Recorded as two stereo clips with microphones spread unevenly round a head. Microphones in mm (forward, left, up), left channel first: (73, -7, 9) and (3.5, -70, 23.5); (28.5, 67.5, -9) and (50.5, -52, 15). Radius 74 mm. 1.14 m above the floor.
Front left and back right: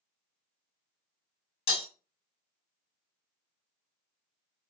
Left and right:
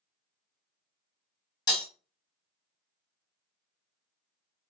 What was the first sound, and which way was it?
Breaking glass, 40° left.